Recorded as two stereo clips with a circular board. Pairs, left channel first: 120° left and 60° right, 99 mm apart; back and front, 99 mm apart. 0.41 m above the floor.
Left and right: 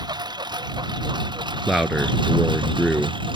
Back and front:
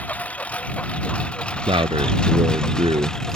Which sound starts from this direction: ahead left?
A man speaking, at 1.7 s.